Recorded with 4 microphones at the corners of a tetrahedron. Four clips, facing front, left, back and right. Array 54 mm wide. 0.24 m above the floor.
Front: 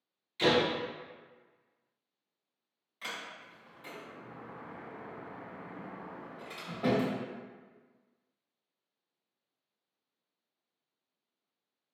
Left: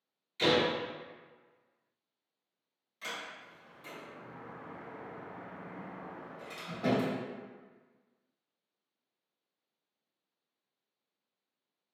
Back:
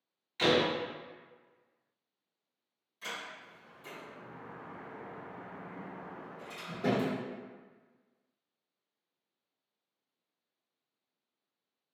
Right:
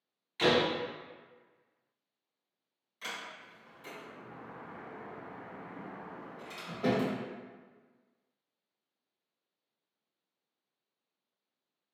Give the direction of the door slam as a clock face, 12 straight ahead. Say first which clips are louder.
Right 1 dB, even; 4 o'clock.